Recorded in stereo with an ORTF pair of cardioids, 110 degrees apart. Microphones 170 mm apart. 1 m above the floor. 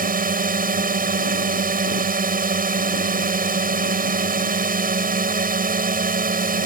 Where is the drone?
60° right.